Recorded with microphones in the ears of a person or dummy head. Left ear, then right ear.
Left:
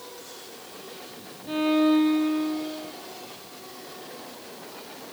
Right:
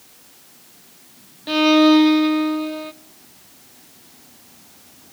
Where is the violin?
80° right, 0.6 m.